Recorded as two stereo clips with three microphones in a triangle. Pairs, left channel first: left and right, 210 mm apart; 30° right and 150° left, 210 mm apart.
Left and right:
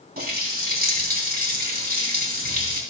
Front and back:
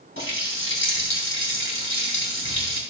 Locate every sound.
0.2 s a running tap: 45° right, 3 m